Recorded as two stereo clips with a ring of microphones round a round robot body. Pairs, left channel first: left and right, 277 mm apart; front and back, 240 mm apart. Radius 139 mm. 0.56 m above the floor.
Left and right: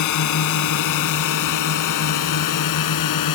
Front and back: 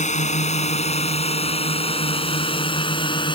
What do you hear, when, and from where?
0.0 s a drone: 60° left; by 3.4 s 70° left